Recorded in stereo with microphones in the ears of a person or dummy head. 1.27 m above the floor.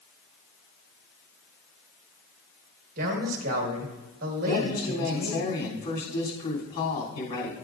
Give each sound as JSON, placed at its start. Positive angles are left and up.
{"t": 3.0, "sound": "a man speaking", "side_deg": -50, "distance_m": 1.6}
{"t": 4.5, "sound": "a woman speaking", "side_deg": 40, "distance_m": 3.0}